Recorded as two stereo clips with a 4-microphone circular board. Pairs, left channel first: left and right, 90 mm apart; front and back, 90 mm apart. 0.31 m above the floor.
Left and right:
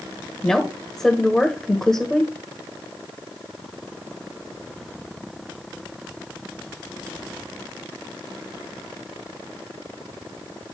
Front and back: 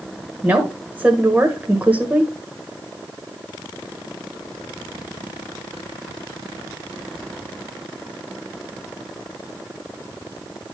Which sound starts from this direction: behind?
A woman speaking, at 0.4 s.